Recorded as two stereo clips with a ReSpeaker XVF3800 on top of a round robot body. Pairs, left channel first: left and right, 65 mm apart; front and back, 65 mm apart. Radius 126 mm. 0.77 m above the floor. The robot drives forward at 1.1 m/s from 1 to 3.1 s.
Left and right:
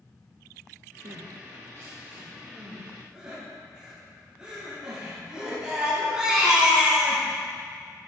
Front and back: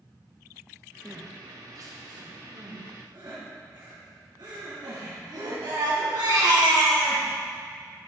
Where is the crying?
90° right, 0.5 m; by 7.2 s 170° right, 2.5 m.